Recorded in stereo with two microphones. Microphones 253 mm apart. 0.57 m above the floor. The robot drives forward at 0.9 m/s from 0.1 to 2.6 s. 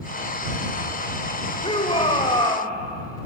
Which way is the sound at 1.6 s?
25° left (ahead or behind).